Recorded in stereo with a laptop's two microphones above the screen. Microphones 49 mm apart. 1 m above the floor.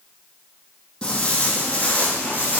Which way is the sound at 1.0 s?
20° left (ahead or behind).